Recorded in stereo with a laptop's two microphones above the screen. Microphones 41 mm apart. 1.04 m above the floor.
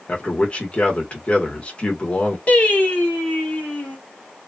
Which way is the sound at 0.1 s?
35° left (ahead or behind).